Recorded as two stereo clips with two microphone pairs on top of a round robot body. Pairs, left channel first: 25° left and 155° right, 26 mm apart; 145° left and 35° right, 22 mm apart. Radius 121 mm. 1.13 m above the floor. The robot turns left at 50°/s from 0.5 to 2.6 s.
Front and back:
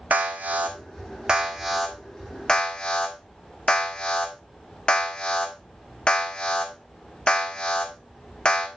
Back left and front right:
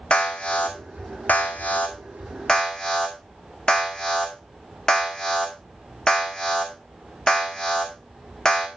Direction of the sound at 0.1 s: 170° right.